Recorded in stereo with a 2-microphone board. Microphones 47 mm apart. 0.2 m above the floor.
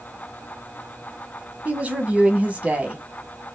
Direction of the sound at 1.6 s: 30° right (ahead or behind).